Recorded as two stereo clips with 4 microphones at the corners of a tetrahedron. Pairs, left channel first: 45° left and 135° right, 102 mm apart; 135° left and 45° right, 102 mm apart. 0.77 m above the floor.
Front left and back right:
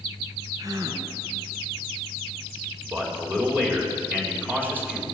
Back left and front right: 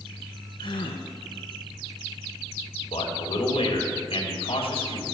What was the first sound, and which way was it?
A gasp, 175° left.